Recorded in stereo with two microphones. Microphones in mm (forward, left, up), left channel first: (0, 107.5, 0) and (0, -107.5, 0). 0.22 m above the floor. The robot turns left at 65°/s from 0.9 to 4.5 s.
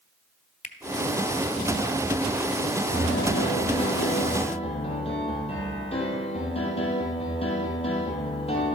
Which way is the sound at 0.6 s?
35° left (ahead or behind).